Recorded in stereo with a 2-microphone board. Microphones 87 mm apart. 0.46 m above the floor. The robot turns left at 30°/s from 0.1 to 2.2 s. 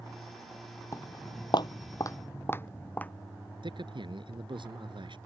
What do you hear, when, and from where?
0.9 s footsteps: 35° left (ahead or behind); by 3.1 s 20° left (ahead or behind)
3.6 s a man speaking: 65° right (ahead or behind)